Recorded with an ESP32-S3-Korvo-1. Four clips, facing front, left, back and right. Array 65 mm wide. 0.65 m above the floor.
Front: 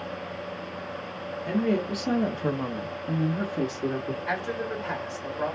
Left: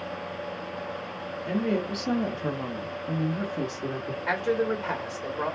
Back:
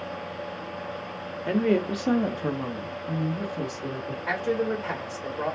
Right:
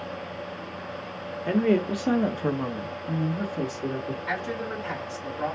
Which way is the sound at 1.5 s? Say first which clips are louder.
Right 5 dB, back 3 dB; 135° right.